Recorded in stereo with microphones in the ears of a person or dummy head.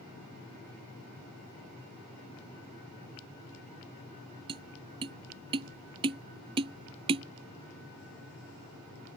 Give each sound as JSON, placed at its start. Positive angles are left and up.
{"t": 4.5, "sound": "tapping", "side_deg": -25}